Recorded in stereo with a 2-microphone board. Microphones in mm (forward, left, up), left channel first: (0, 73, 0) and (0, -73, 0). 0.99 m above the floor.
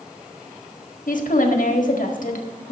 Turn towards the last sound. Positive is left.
turn(degrees=65)  # may be behind; listen again after turning